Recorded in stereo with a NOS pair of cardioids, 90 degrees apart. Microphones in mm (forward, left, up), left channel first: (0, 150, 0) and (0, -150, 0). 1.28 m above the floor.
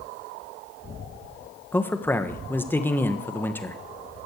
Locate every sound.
1.7 s a man speaking: 5° left, 1.2 m